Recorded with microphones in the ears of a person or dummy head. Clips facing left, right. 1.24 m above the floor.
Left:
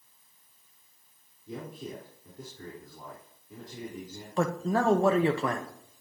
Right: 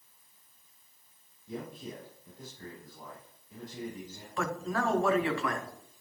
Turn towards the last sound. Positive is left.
turn(degrees=35)  # may be behind; listen again after turning